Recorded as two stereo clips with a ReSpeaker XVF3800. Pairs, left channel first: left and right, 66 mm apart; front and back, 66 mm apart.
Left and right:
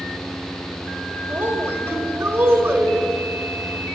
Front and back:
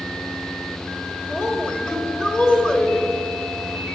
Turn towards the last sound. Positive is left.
turn(degrees=-65)